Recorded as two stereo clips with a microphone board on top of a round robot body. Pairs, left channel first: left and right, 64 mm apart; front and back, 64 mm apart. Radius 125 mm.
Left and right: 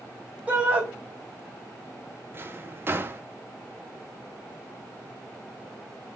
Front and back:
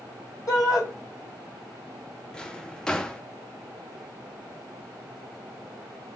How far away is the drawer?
About 0.7 m.